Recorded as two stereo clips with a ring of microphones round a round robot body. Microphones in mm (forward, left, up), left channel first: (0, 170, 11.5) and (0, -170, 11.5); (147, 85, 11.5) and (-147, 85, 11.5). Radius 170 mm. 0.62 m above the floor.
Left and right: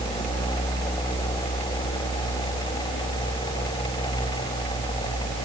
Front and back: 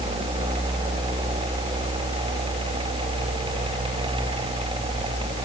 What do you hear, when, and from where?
Only background noise.